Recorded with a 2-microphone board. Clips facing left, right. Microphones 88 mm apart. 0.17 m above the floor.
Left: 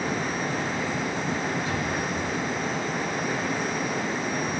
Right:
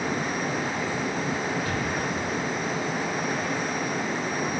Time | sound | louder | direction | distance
1.6 | an explosion | even | 70° right (ahead or behind) | 4.5 m